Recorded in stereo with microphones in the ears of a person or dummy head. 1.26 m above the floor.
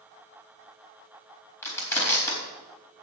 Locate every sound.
1.6 s crushing: 15° left (ahead or behind), 4 m